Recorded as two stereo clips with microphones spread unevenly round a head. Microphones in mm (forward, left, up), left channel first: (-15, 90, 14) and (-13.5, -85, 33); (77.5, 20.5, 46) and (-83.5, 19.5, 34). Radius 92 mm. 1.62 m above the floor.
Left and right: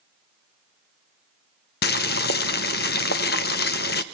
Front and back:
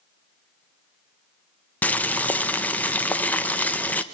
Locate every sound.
1.8 s boiling: 75° left, 0.9 m